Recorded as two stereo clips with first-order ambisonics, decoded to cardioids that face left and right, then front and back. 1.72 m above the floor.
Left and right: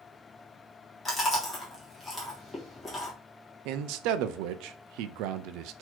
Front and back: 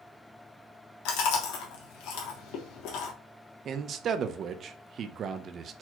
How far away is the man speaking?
About 0.5 m.